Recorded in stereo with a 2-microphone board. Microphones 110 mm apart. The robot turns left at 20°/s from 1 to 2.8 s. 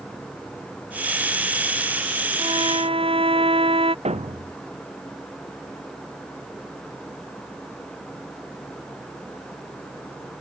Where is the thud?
75° right (ahead or behind).